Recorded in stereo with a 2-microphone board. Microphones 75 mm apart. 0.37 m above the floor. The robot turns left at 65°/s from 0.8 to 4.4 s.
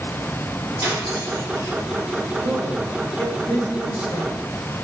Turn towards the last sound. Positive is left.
turn(degrees=95)